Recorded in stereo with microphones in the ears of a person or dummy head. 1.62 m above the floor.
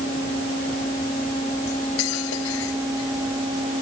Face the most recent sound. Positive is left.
turn(degrees=75)  # may be behind; listen again after turning